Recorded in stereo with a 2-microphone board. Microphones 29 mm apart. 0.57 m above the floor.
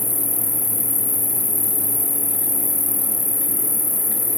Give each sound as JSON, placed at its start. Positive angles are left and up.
{"t": 0.0, "sound": "an insect", "side_deg": 85}